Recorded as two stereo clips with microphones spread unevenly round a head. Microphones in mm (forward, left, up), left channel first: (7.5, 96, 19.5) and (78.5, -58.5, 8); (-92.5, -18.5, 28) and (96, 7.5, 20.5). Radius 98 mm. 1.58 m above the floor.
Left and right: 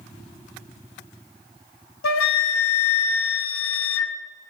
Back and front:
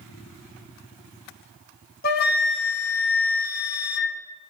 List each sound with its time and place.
2.0 s a flute: 140° left, 0.9 m